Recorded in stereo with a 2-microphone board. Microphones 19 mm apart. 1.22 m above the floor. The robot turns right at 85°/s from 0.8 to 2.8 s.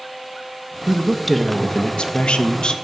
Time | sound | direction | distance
0.9 | a woman speaking | 35° right | 1.5 m